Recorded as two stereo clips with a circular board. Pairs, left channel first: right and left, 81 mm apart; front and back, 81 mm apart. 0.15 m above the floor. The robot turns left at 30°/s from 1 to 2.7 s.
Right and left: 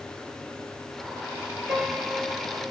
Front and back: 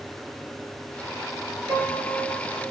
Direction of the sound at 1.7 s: 170° left.